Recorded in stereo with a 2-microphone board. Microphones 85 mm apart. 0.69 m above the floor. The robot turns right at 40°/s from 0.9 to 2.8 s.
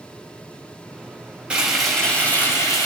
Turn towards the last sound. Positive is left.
turn(degrees=40)